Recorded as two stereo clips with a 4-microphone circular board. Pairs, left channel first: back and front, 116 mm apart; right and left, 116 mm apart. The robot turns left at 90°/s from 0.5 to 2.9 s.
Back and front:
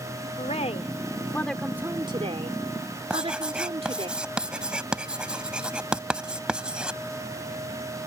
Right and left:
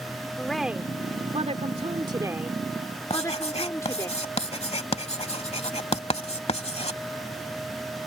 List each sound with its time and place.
0.4 s a woman speaking: 175° right; by 4.1 s 30° right
3.1 s writing: 80° right